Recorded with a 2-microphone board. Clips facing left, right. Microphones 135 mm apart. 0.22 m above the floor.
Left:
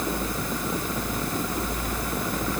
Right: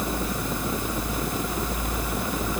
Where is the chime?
I don't hear a chime.